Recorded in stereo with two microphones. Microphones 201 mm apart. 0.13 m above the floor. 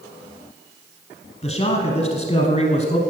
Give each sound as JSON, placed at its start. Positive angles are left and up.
{"t": 1.4, "sound": "a man speaking", "side_deg": 30, "distance_m": 1.2}